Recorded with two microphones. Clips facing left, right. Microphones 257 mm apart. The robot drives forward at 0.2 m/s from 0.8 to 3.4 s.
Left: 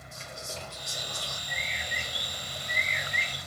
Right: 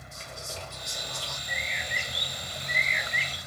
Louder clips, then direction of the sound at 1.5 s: Right 2 dB; 70° right (ahead or behind).